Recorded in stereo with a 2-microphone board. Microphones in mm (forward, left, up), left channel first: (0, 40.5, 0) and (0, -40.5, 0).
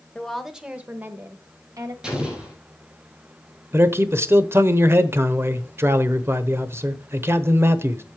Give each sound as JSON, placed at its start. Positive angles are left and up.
{"t": 0.1, "sound": "a woman speaking", "side_deg": 10, "distance_m": 1.1}
{"t": 2.0, "sound": "an explosion", "side_deg": -10, "distance_m": 4.0}
{"t": 3.7, "sound": "a man speaking", "side_deg": -30, "distance_m": 0.9}